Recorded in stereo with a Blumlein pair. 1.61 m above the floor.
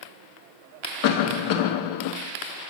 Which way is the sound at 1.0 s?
45° left.